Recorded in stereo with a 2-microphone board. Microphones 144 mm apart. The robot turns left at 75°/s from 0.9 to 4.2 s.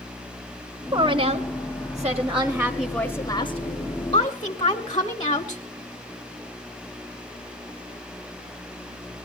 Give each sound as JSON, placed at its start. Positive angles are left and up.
{"t": 0.9, "sound": "a woman speaking", "azimuth_deg": -55, "distance_m": 1.2}